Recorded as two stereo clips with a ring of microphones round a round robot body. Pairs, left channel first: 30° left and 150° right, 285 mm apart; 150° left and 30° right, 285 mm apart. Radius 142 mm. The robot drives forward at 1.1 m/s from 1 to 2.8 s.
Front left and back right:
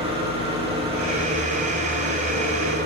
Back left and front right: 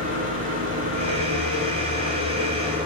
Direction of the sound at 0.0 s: 80° right.